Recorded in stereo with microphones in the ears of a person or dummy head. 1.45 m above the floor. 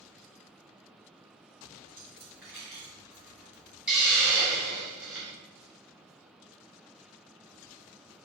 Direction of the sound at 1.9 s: 10° right (ahead or behind).